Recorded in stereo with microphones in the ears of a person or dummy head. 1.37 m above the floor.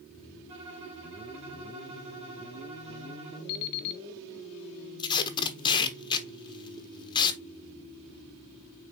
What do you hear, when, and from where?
0.5 s a violin: 30° right (ahead or behind), 1.9 m
3.5 s an alarm clock: 50° left (ahead or behind), 0.8 m
5.0 s tape being pulled: 20° left (ahead or behind), 1.0 m